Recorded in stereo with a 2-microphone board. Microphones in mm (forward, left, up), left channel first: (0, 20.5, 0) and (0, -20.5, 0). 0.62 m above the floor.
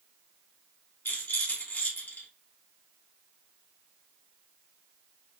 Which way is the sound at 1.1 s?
55° left (ahead or behind).